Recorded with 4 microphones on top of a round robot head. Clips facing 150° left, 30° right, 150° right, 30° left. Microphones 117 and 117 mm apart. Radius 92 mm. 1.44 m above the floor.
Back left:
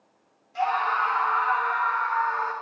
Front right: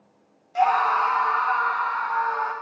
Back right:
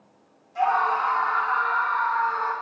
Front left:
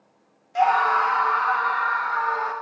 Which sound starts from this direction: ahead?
A scream, at 0.6 s.